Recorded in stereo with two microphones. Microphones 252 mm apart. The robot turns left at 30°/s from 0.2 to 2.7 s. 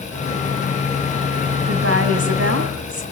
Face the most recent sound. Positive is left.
turn(degrees=-100)